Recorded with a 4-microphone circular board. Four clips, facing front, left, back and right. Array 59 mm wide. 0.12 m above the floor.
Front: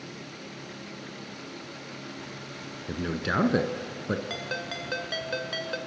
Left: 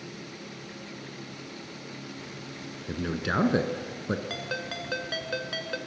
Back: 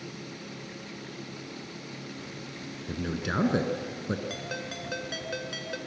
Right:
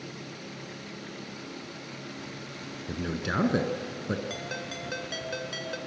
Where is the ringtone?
45° left, 1.2 m.